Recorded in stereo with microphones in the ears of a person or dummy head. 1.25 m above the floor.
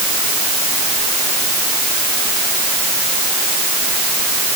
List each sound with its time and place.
Only background noise.